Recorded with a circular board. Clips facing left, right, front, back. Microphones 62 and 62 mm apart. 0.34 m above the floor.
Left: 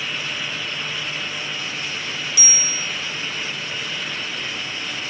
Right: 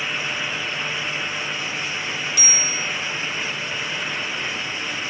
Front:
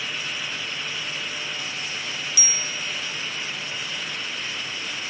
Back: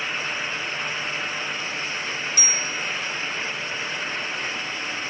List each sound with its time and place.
2.4 s a bicycle bell: 130° right, 6.5 m